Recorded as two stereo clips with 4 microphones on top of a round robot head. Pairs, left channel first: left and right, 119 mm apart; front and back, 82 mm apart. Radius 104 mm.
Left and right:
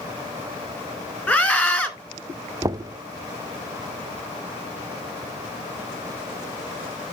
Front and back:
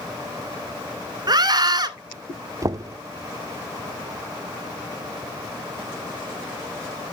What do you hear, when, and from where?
1.3 s a scream: 160° left, 2 m
2.6 s knocking: 145° right, 0.5 m